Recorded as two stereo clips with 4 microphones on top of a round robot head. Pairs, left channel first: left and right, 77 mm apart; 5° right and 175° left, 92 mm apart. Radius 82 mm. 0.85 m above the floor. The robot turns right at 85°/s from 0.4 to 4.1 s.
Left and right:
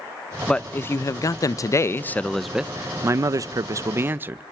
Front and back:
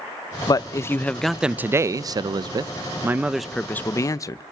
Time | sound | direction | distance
0.5 | a man speaking | 15° left | 0.5 m